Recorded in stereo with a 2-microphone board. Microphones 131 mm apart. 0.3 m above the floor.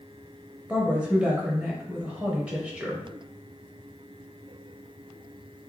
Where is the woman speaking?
10° right (ahead or behind), 0.9 m.